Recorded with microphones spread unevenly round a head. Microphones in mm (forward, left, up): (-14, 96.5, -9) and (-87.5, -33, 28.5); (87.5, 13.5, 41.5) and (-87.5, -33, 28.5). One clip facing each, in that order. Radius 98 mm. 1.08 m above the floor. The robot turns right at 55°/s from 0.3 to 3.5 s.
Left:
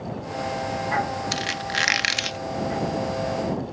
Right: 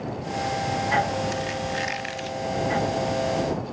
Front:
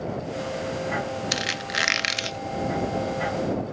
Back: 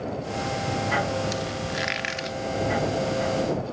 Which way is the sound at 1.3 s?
20° left.